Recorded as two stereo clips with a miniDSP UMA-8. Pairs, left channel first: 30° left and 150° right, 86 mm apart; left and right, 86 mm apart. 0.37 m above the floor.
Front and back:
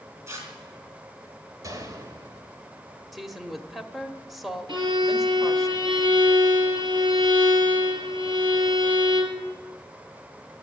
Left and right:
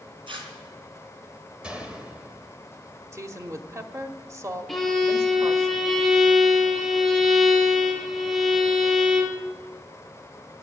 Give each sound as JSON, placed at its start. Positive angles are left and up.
{"t": 0.3, "sound": "tearing paper", "azimuth_deg": -95, "distance_m": 3.5}
{"t": 1.6, "sound": "a gunshot", "azimuth_deg": -160, "distance_m": 1.9}
{"t": 3.1, "sound": "a woman speaking", "azimuth_deg": -60, "distance_m": 1.1}
{"t": 4.7, "sound": "a violin", "azimuth_deg": 180, "distance_m": 2.0}